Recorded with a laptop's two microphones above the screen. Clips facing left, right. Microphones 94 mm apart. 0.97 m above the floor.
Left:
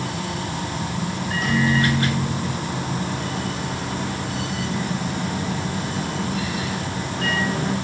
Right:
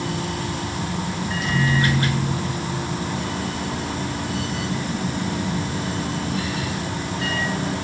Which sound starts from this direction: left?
A microwave, at 1.3 s.